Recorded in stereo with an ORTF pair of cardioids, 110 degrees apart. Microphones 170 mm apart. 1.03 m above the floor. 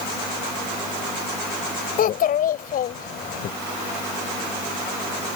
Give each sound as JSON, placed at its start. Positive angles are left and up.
{"t": 2.0, "sound": "a child speaking", "azimuth_deg": 55}